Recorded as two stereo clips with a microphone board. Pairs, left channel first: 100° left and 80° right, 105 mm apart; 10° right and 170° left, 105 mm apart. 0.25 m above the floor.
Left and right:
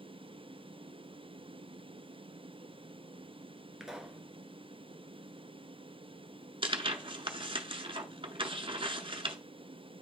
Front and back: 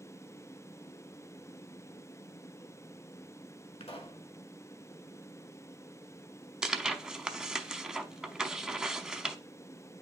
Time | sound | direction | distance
3.8 | a pop | 5° left | 1.0 m
6.6 | tearing paper | 105° right | 0.6 m